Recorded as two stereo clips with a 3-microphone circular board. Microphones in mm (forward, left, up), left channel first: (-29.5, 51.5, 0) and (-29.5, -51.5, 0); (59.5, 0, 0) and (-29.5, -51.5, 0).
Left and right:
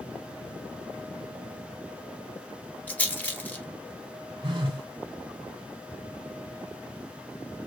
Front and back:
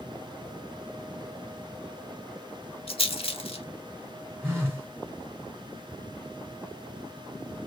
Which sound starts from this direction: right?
A phone buzzing, at 4.4 s.